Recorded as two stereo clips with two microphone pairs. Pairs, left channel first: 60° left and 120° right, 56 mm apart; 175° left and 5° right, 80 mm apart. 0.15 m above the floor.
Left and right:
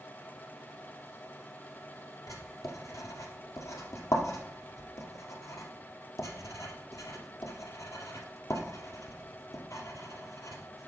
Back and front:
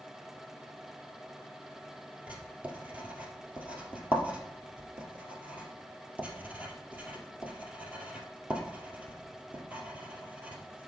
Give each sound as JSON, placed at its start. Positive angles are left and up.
{"t": 2.3, "sound": "writing", "azimuth_deg": 65, "distance_m": 1.8}